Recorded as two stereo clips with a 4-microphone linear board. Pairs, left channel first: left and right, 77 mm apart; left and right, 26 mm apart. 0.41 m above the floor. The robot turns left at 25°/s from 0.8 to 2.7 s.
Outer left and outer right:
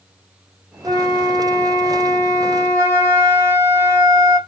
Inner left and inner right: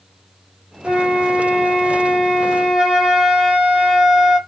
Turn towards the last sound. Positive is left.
turn(degrees=-130)